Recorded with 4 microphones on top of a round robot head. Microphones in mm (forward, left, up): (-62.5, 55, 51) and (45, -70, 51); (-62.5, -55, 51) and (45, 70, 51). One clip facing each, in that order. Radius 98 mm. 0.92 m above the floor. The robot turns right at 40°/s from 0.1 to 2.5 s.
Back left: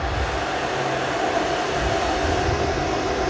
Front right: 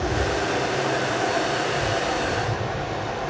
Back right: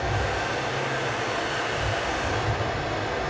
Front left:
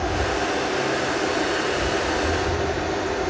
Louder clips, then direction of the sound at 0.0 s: Front right 2 dB, front left 4 dB; 5° right.